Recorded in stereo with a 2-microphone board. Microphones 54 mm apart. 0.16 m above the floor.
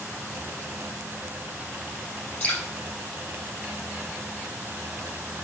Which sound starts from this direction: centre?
Dripping, at 2.4 s.